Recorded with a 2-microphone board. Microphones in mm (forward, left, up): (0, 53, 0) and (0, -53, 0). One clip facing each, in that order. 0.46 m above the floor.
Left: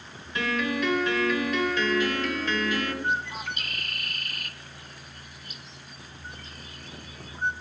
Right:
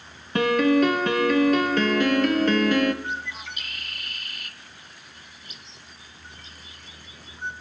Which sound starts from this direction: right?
A piano, at 0.3 s.